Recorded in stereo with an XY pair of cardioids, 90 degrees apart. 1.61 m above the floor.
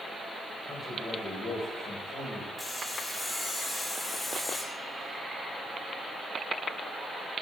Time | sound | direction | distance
0.7 | a man speaking | 30° left | 1.6 m
2.6 | sawing | 15° left | 0.8 m